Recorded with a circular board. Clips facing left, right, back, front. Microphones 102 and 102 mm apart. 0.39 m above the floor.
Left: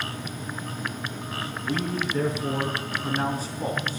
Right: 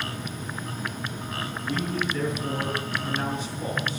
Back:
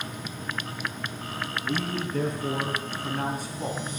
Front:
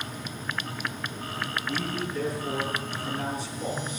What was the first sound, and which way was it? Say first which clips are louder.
A man speaking: left 1 dB, back 4 dB; 155° left.